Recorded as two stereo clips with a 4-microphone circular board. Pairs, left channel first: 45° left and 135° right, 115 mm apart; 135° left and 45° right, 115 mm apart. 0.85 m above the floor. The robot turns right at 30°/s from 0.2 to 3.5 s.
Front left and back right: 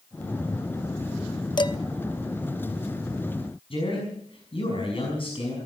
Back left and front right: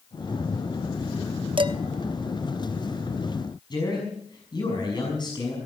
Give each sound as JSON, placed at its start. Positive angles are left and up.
{"t": 1.6, "sound": "dishes clattering", "azimuth_deg": -5, "distance_m": 0.6}
{"t": 3.7, "sound": "a man speaking", "azimuth_deg": 85, "distance_m": 6.0}